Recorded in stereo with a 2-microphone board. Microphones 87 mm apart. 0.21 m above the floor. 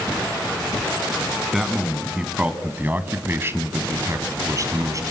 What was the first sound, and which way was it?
A man speaking, 5° right (ahead or behind).